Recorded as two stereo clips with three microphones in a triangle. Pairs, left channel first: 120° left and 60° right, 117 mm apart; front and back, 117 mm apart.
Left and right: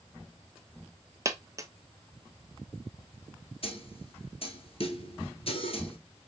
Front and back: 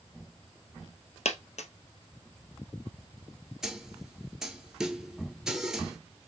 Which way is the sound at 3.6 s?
95° left.